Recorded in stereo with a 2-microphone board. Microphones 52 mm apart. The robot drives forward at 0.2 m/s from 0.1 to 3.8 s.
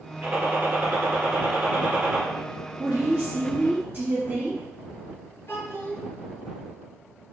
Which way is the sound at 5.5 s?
50° left (ahead or behind).